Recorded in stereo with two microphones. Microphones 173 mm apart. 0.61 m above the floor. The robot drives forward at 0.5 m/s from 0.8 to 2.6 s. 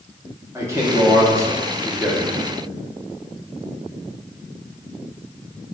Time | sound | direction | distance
0.6 | a man speaking | 15° right (ahead or behind) | 0.8 m